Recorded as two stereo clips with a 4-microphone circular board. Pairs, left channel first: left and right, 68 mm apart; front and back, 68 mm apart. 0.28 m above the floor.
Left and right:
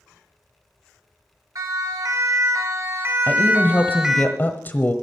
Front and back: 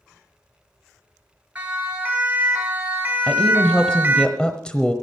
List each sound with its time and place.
1.6 s a siren: 115° right, 3 m; by 4.3 s straight behind, 1.2 m
3.3 s a woman speaking: 65° left, 1.1 m